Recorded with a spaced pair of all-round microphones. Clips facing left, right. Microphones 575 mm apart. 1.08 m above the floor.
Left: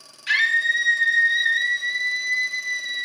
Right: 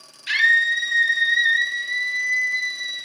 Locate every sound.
0.3 s a scream: 70° left (ahead or behind), 1.9 m; by 3.0 s 45° left (ahead or behind), 1.2 m